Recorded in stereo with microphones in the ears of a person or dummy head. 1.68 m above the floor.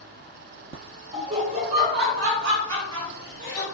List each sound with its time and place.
1.1 s laughter: 35° right (ahead or behind), 1.0 m; by 3.6 s 65° right (ahead or behind), 1.2 m